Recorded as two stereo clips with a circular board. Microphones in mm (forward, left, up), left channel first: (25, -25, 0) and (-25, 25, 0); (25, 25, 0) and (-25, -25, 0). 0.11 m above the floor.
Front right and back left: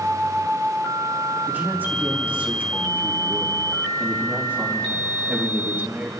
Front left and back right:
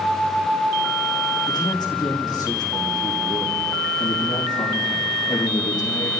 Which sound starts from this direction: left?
A man speaking, at 1.5 s.